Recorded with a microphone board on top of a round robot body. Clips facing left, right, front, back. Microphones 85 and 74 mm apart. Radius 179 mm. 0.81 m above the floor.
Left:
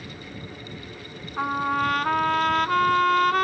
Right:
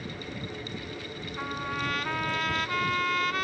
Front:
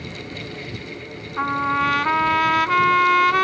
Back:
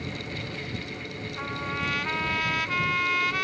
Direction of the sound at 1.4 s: 45° left.